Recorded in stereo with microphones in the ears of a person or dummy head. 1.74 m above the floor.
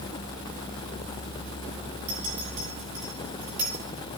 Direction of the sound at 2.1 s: 35° right (ahead or behind).